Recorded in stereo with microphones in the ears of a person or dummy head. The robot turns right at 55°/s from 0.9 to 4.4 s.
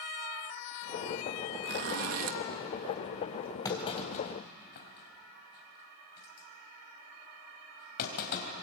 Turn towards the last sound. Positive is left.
turn(degrees=60)  # may be behind; listen again after turning